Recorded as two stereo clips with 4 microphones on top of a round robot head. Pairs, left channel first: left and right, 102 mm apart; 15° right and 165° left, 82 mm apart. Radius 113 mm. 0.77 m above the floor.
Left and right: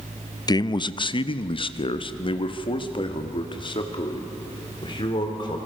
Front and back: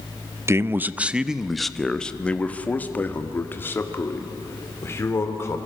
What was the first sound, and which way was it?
A man speaking, 125° left.